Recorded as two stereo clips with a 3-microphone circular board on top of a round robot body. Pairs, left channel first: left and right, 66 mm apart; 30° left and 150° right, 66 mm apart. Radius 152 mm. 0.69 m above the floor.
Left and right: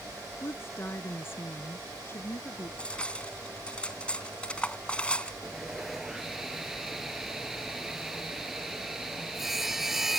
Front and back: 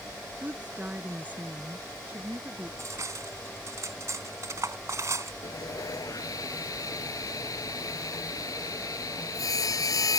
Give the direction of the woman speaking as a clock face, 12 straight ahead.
7 o'clock.